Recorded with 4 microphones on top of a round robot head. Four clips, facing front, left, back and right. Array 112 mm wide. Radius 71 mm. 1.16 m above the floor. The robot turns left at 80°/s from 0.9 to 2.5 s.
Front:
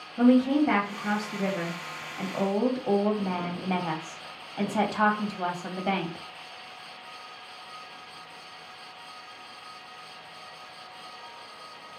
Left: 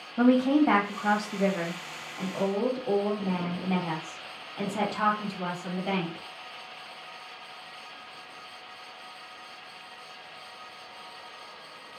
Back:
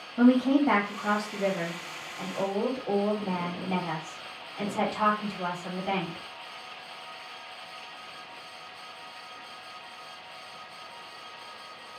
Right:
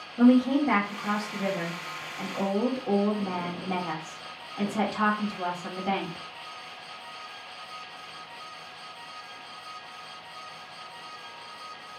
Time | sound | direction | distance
0.2 | a woman speaking | 120° left | 1.5 m